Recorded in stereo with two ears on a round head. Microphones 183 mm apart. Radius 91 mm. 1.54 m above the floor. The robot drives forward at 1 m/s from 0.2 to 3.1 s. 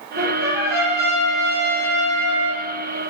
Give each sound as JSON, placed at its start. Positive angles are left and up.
{"t": 0.2, "sound": "a trumpet", "side_deg": -45, "distance_m": 8.5}